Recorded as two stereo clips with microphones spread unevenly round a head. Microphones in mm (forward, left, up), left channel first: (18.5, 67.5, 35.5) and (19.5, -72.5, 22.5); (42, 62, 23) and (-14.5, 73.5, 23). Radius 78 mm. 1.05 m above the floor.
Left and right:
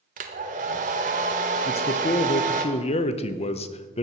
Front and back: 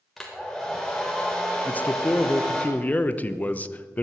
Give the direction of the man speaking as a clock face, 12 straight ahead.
10 o'clock.